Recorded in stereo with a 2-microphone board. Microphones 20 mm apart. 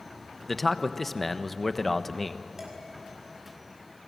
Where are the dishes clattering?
25° right (ahead or behind), 6 m.